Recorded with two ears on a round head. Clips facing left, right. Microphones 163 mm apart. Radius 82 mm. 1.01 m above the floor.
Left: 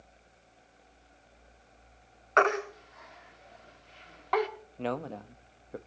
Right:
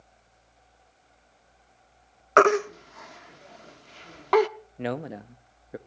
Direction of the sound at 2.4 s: 55° right (ahead or behind).